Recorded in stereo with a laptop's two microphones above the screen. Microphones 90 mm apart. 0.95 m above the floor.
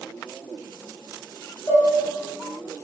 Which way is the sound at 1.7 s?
45° left (ahead or behind).